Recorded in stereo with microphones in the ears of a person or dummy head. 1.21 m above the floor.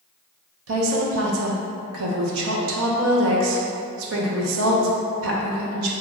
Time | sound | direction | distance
0.7 | a woman speaking | 85° right | 0.7 m